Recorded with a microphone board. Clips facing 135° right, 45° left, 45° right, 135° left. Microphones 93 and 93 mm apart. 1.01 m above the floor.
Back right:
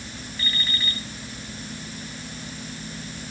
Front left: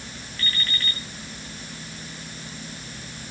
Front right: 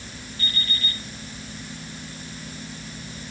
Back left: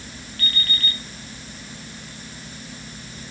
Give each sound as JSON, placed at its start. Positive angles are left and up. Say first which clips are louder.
{"t": 0.4, "sound": "an alarm clock", "louder": "even, back left 2 dB", "azimuth_deg": 140, "distance_m": 6.0}